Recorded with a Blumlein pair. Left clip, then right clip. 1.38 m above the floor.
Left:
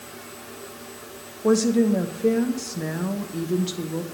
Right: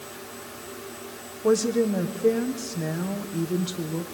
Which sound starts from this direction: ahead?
A woman speaking, at 1.4 s.